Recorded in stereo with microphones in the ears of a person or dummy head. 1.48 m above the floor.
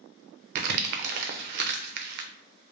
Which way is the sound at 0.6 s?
55° right (ahead or behind).